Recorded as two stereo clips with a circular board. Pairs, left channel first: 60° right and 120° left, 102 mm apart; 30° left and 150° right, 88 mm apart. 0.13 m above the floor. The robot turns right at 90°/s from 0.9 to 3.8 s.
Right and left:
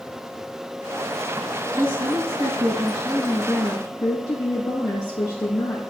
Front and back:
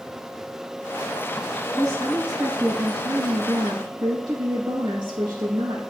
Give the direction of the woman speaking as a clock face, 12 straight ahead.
10 o'clock.